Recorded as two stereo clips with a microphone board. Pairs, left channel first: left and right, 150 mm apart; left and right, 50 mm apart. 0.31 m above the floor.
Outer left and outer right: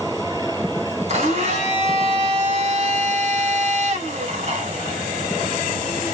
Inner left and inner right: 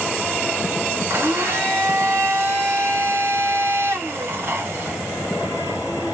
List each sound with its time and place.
1.1 s a blender: 45° right (ahead or behind), 1.0 m